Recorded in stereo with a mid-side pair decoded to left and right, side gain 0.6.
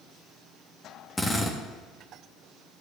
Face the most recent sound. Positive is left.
turn(degrees=15)